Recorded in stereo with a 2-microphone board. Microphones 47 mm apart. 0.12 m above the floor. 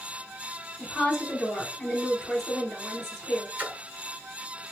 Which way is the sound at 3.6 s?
35° right (ahead or behind).